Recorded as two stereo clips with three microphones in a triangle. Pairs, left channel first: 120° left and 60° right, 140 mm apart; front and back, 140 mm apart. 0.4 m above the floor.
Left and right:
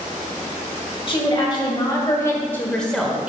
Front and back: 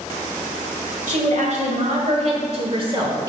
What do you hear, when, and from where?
1.1 s a woman speaking: 165° left, 2.0 m; by 3.3 s 130° right, 1.0 m